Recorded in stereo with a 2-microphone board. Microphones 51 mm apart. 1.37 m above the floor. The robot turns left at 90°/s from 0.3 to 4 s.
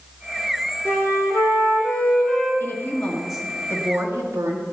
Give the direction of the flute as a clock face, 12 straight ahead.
7 o'clock.